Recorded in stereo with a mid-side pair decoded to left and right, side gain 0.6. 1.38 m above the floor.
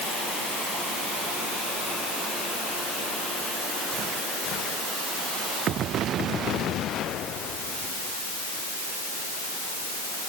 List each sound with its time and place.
Only background noise.